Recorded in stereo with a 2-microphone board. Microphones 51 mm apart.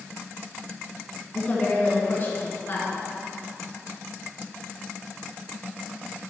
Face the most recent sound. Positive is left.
turn(degrees=50)  # may be behind; listen again after turning